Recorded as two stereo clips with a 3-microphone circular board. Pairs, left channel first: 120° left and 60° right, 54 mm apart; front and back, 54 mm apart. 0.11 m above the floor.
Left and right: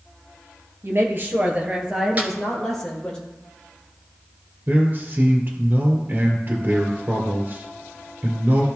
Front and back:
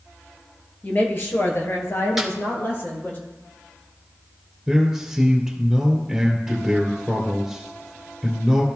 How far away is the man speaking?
About 2.0 m.